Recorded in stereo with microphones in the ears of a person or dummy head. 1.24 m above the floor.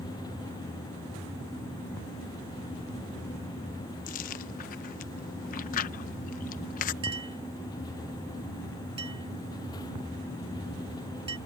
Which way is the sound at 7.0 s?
30° right (ahead or behind).